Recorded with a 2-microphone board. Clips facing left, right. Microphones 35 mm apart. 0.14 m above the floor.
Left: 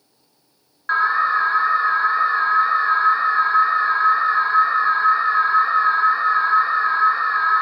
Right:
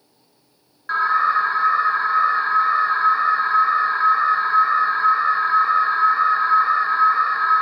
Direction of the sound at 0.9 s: 20° left (ahead or behind).